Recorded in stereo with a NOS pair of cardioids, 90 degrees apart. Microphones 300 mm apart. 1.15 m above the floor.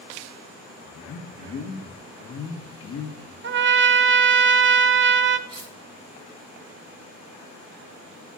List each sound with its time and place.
0.8 s a man speaking: 55° left, 1.7 m
3.4 s a trumpet: 40° right, 0.7 m
5.5 s cutlery clinking: 20° right, 3.5 m